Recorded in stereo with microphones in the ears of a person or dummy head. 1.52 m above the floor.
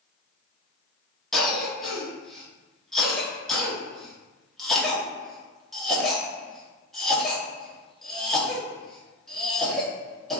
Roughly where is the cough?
Centre.